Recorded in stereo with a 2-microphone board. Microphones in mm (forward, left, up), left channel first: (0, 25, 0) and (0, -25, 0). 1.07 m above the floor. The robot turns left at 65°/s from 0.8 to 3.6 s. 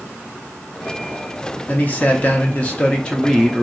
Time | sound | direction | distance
1.7 | a man speaking | 120° left | 0.7 m